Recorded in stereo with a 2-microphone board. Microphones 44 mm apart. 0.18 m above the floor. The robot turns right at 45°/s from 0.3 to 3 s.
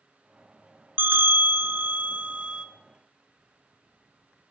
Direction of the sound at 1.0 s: 110° right.